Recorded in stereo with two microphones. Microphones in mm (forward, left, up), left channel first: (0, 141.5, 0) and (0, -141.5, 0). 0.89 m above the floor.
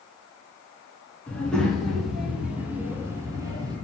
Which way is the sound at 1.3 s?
5° left (ahead or behind).